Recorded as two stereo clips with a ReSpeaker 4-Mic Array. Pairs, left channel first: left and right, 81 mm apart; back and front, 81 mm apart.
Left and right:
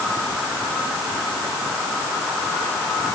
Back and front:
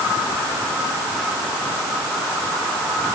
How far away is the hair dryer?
I don't hear a hair dryer.